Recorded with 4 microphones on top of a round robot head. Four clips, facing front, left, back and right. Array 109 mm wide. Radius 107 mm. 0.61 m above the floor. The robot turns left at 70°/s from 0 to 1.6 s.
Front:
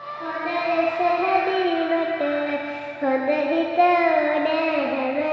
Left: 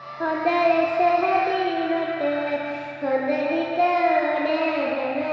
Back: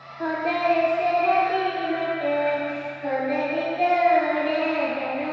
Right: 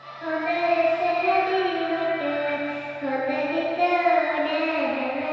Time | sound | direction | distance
0.2 | singing | 120° left | 0.6 m